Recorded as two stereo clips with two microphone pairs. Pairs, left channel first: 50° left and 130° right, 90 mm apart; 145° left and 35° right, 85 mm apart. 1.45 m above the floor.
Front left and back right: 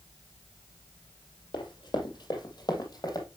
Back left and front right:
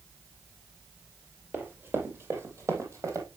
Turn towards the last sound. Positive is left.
turn(degrees=10)